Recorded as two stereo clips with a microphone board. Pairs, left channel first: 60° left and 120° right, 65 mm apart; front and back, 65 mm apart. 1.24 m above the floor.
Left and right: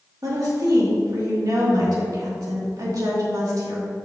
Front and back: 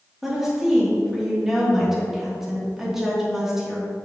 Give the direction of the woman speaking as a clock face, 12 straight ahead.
3 o'clock.